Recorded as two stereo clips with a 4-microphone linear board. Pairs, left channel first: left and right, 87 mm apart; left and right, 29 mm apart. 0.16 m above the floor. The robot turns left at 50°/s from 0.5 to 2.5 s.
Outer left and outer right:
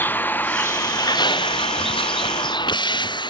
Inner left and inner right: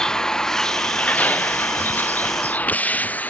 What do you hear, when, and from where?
0.0 s a vehicle: 20° left (ahead or behind); by 3.3 s 60° left (ahead or behind)